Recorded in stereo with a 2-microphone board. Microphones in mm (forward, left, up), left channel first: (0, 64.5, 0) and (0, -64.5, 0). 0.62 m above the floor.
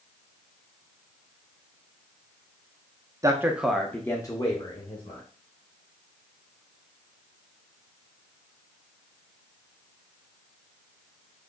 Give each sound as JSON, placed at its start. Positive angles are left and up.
{"t": 3.2, "sound": "a man speaking", "side_deg": -25, "distance_m": 0.5}